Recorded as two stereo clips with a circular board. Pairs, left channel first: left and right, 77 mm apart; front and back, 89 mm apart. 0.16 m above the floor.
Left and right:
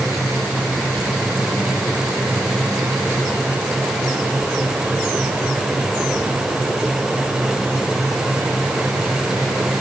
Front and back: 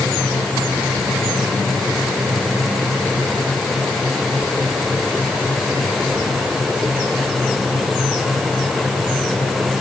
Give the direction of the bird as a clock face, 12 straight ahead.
I don't hear a bird.